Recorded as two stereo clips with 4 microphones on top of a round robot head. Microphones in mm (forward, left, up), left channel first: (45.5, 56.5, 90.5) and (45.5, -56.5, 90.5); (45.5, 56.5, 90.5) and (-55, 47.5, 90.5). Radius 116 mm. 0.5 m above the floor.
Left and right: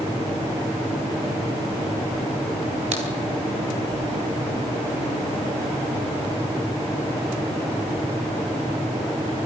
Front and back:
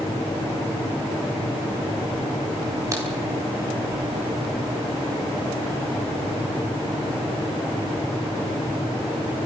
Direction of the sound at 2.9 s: 115° right.